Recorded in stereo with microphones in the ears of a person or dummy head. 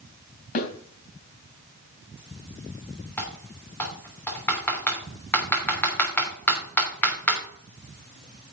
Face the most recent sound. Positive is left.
turn(degrees=5)  # may be behind; listen again after turning